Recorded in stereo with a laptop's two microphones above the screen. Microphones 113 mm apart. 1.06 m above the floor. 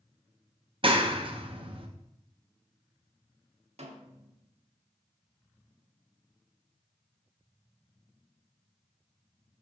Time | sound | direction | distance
0.8 | a clap | 50° right (ahead or behind) | 0.8 m
3.8 | a snare drum | 70° right (ahead or behind) | 1.2 m